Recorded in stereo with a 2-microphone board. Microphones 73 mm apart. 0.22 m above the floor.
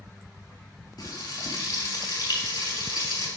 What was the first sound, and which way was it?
Frying, 75° left (ahead or behind).